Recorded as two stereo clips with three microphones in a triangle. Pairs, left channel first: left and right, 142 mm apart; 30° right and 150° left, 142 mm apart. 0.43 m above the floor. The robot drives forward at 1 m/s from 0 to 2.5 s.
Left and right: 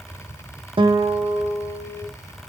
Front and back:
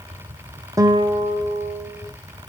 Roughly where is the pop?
I don't hear a pop.